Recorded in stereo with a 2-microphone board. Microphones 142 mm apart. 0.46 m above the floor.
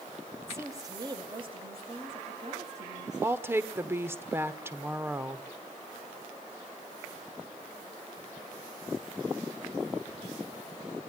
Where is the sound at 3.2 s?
15° right (ahead or behind), 1.2 m.